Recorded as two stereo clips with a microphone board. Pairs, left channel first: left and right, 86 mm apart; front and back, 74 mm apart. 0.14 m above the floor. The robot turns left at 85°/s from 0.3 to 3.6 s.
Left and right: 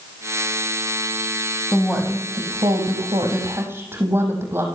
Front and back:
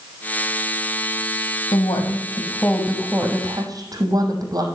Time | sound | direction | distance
1.7 | a woman speaking | 10° left | 5 m